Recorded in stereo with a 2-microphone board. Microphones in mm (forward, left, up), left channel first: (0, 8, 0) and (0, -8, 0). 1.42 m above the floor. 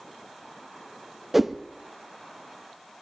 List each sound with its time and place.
1.3 s a whoosh: 15° right (ahead or behind), 0.7 m